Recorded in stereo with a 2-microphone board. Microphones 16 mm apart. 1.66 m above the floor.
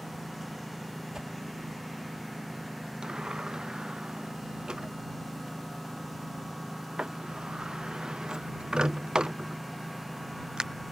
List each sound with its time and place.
0.0 s a lawn mower: centre (ahead or behind)
1.1 s a whoosh: 50° right (ahead or behind)
3.0 s a sliding door: 65° right (ahead or behind)